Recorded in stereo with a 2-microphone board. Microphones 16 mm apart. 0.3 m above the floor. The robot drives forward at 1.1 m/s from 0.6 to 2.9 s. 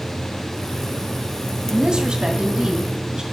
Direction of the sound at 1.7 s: 60° right (ahead or behind).